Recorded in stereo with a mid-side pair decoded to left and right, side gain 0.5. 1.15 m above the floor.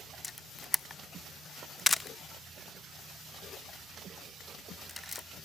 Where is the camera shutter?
15° left, 0.6 m.